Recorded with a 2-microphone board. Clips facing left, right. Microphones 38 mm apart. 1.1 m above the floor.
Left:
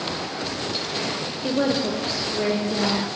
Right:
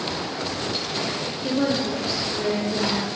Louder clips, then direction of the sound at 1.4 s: Left 1 dB; 20° left (ahead or behind).